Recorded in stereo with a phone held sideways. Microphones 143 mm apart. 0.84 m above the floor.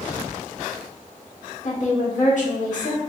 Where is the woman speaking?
60° left (ahead or behind), 1.4 m.